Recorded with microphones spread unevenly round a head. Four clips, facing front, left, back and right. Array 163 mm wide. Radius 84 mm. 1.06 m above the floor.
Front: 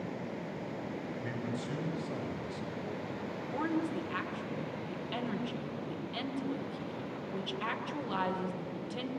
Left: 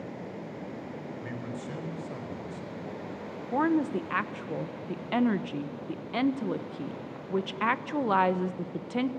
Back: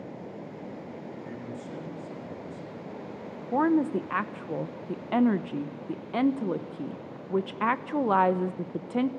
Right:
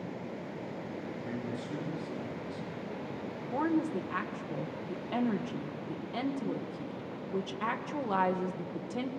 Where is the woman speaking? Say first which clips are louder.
Left 4 dB, back 10 dB; 165° left, 0.9 m.